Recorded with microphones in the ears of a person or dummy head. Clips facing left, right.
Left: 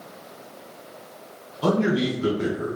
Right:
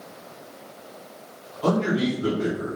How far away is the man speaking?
About 1.1 m.